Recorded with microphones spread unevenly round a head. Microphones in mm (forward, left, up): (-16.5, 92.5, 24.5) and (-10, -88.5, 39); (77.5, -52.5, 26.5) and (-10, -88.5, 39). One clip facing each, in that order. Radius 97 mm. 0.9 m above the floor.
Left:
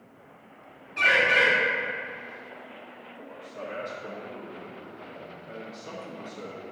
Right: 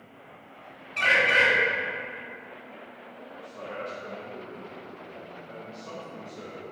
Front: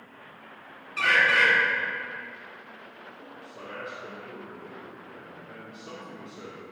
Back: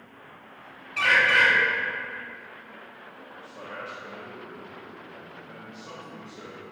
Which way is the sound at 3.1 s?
135° left.